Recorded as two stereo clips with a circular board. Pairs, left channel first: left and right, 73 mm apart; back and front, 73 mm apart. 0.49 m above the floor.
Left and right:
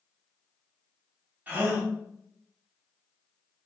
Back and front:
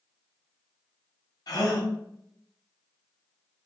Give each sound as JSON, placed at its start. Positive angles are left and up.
{"t": 1.5, "sound": "a gasp", "azimuth_deg": -155, "distance_m": 0.8}